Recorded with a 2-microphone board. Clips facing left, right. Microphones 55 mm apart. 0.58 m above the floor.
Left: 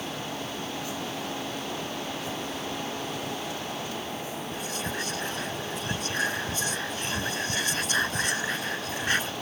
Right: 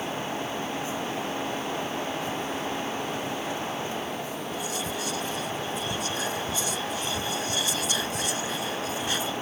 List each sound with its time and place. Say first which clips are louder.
4.5 s whispering: right 1 dB; 45° left (ahead or behind)